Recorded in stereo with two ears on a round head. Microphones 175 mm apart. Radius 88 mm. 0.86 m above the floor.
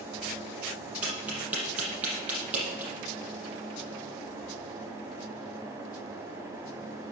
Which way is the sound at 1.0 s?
10° right (ahead or behind).